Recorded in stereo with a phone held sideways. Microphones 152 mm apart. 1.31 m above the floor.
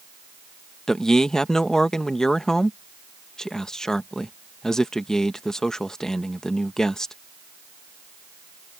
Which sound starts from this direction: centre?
A man speaking, at 0.9 s.